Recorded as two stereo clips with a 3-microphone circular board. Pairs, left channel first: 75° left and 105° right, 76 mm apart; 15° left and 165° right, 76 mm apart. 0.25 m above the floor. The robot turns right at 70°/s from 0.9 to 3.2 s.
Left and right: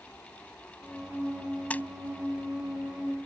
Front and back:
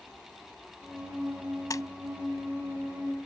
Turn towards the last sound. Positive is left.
turn(degrees=115)